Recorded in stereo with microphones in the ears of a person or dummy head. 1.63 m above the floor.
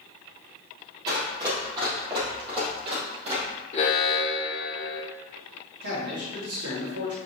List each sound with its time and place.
1.1 s running footsteps: 20° right (ahead or behind), 2.5 m; by 3.5 s 35° right (ahead or behind), 4 m
3.7 s an alarm: 40° left (ahead or behind), 1.2 m
5.8 s a man speaking: 70° right (ahead or behind), 3 m